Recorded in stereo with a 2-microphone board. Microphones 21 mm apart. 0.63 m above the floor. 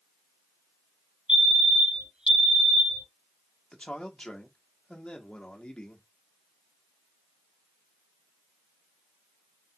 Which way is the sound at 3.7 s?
50° left (ahead or behind).